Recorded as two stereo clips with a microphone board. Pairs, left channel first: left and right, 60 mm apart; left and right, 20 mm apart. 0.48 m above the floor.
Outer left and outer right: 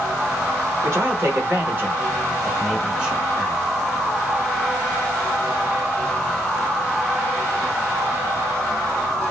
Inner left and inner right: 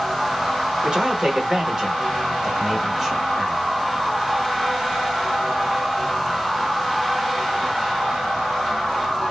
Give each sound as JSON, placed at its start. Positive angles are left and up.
{"t": 0.8, "sound": "a man speaking", "side_deg": -50, "distance_m": 1.2}